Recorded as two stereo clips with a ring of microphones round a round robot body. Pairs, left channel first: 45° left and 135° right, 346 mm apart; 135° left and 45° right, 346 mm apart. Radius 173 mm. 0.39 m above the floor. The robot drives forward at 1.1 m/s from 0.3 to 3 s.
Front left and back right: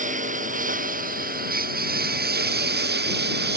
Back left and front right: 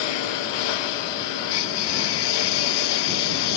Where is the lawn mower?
155° left; by 3.6 s 160° left.